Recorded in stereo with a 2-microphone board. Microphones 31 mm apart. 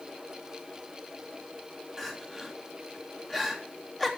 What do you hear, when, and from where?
2.0 s crying: 10° left (ahead or behind), 3.5 m